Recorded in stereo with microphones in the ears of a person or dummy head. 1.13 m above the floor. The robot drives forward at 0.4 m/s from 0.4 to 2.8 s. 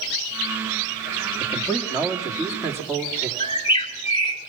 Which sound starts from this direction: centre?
A man speaking, at 1.4 s.